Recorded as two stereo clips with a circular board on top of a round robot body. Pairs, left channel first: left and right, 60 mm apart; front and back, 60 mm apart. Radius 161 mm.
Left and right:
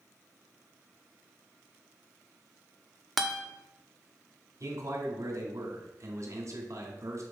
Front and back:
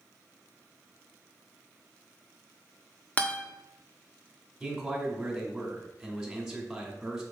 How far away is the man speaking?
About 2 m.